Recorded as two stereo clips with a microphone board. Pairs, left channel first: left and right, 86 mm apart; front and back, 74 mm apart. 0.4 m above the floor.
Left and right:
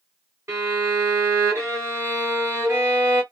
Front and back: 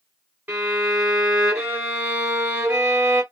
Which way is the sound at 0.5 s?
125° right.